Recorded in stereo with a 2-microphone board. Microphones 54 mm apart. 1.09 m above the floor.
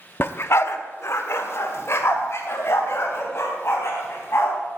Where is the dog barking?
45° left (ahead or behind), 0.7 m; by 4.5 s 55° left (ahead or behind), 4.5 m.